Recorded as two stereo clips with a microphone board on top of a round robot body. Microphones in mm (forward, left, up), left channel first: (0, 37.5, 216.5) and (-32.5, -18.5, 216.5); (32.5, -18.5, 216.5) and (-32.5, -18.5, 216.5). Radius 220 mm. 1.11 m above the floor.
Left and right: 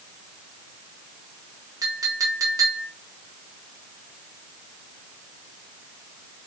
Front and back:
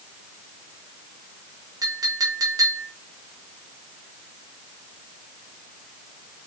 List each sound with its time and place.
1.8 s a clink: 155° right, 1.9 m